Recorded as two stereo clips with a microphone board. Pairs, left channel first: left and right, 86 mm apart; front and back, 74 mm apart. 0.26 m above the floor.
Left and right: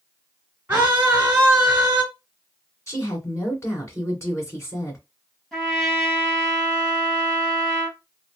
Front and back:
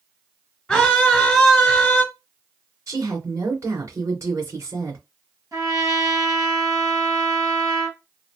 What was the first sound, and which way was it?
A scream, 50° right.